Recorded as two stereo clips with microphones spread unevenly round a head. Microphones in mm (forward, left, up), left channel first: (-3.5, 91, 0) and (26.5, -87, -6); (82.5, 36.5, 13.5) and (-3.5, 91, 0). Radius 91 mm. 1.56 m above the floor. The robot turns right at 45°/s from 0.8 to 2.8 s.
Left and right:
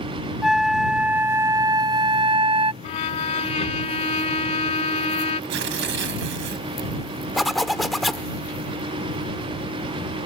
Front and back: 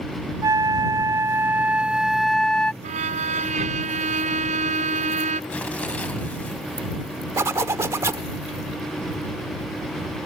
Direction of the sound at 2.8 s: 160° left.